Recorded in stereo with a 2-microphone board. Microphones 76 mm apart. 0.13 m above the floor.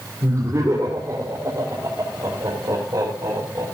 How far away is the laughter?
About 5.5 m.